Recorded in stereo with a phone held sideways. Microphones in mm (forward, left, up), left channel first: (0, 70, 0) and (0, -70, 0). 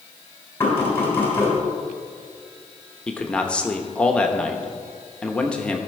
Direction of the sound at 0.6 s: 20° left (ahead or behind).